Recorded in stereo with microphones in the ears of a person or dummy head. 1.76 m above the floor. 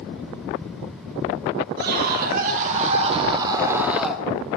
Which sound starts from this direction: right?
A scream, at 1.8 s.